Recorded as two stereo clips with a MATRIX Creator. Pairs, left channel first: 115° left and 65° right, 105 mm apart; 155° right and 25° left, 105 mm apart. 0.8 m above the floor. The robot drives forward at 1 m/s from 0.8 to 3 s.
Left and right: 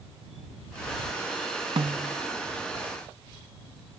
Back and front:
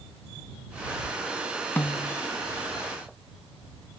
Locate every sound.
1.8 s a snare drum: 85° right, 0.7 m; by 2.2 s 120° right, 0.8 m